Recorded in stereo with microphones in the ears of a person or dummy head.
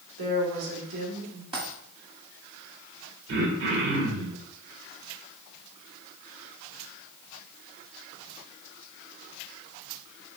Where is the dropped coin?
25° right (ahead or behind), 1.9 m.